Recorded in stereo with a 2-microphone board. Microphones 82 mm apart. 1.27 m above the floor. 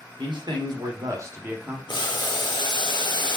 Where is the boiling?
65° left (ahead or behind), 0.7 m.